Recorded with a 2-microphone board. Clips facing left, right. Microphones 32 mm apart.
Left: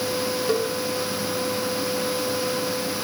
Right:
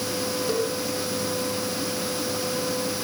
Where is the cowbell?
15° left (ahead or behind), 4.5 m.